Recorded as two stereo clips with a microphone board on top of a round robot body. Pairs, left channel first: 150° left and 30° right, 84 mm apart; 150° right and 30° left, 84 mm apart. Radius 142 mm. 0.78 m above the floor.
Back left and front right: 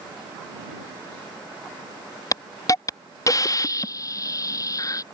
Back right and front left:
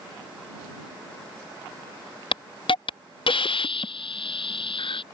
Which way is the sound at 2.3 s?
160° right.